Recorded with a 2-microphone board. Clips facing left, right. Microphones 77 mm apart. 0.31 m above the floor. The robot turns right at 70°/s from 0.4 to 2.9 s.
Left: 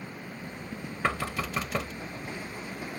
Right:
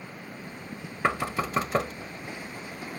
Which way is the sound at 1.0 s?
15° right (ahead or behind).